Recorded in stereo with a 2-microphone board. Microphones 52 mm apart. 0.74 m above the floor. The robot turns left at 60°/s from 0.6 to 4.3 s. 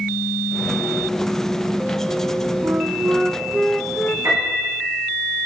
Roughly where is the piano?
Right.